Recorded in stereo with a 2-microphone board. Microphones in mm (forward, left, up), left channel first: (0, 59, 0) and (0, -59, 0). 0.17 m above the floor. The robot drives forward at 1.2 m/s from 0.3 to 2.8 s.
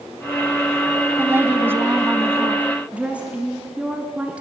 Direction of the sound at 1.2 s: 20° right (ahead or behind).